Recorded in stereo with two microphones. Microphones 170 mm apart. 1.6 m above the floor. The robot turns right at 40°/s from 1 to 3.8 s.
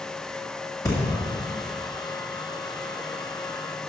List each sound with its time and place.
0.8 s breathing: 20° left (ahead or behind), 2.0 m